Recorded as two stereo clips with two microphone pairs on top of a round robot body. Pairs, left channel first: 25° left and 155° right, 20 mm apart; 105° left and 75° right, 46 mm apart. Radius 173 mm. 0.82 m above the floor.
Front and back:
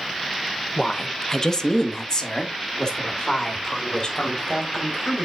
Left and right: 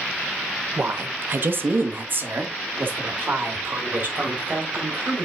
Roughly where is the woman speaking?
Ahead right.